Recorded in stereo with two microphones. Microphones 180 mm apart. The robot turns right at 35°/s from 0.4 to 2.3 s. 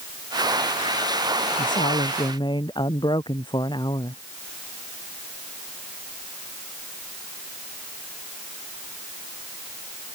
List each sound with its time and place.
1.6 s a woman speaking: 50° left (ahead or behind); by 4.2 s 25° left (ahead or behind)